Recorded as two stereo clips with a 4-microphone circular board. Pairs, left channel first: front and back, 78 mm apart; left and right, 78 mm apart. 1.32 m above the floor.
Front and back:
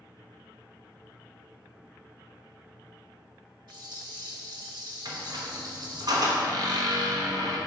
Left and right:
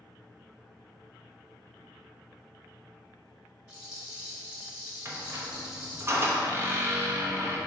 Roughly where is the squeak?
Behind right.